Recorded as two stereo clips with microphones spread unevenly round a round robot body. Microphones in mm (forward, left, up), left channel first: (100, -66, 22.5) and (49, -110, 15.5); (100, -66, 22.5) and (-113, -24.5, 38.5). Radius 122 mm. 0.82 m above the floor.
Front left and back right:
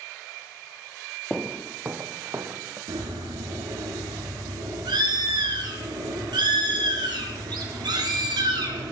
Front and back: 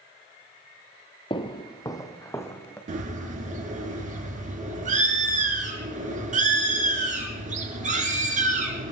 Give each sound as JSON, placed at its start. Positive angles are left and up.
{"t": 1.3, "sound": "footsteps", "azimuth_deg": -40, "distance_m": 0.8}
{"t": 2.9, "sound": "a bird", "azimuth_deg": -135, "distance_m": 2.5}